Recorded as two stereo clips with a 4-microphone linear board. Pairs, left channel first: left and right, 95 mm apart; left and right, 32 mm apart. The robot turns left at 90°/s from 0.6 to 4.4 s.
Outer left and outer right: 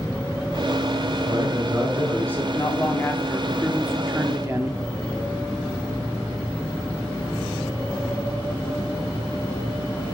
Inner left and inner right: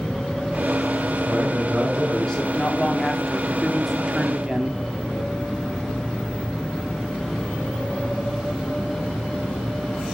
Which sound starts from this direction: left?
A man speaking, at 2.5 s.